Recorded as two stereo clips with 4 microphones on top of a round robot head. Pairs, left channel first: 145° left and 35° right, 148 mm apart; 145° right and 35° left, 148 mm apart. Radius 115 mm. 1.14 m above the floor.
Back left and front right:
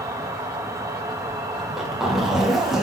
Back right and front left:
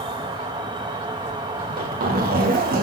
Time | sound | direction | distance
0.0 | an insect | 15° left | 1.0 m
1.6 | a zipper | 55° left | 1.8 m